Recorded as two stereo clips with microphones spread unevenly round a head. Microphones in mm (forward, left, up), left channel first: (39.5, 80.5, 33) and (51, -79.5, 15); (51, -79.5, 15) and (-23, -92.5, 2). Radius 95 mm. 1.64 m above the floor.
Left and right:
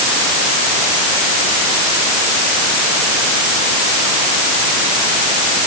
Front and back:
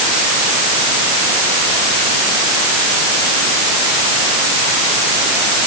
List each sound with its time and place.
Only background noise.